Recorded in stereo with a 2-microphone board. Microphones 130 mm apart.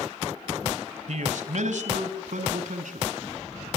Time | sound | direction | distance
1.1 | a man speaking | 65° right (ahead or behind) | 1.7 m